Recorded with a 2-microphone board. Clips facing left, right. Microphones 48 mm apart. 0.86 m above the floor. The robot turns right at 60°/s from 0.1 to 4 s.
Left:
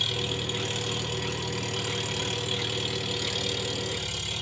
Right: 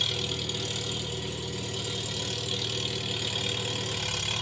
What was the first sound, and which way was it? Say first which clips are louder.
An engine running: left 2 dB; straight ahead.